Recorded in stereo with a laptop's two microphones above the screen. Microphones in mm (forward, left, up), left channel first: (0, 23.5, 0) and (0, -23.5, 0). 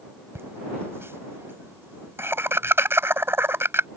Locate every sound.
0.3 s laughter: 60° right (ahead or behind)